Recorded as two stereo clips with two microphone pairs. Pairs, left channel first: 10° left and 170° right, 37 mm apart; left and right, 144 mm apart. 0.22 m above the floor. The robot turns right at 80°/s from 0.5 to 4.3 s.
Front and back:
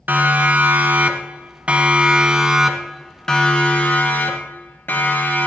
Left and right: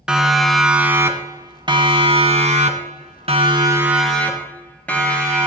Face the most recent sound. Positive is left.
turn(degrees=5)